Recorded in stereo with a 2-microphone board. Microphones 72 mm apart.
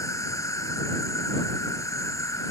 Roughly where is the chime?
No chime in this recording.